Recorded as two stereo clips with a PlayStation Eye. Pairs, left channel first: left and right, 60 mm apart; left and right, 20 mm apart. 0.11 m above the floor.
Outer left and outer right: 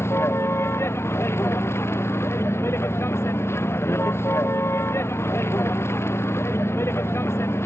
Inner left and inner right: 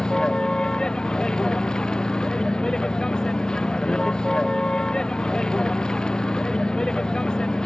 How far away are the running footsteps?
No running footsteps in this recording.